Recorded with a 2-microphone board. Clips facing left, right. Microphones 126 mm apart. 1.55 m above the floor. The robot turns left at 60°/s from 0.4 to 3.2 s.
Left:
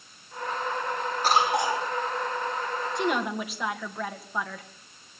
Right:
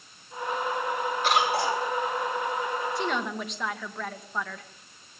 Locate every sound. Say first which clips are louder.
1.2 s a cough: left 2 dB; 40° left, 6.5 m; by 1.9 s 5° left, 6.5 m
3.0 s a woman speaking: left 2 dB; 20° left (ahead or behind), 2 m; by 4.7 s 5° left (ahead or behind), 2 m